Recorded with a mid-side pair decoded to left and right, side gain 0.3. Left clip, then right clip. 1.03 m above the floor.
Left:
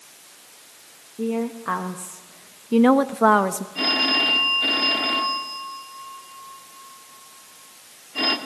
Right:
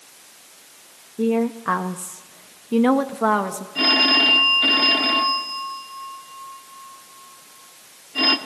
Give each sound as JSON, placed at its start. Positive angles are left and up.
{"t": 1.2, "sound": "a woman speaking", "azimuth_deg": -55, "distance_m": 1.5}
{"t": 3.8, "sound": "a phone ringing", "azimuth_deg": -45, "distance_m": 2.0}